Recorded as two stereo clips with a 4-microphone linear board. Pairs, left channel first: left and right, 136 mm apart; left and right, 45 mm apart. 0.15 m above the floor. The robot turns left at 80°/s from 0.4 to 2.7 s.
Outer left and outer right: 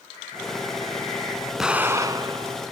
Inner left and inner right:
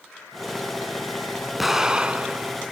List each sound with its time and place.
1.6 s an explosion: 5° right, 0.6 m; by 2.5 s 80° right, 0.6 m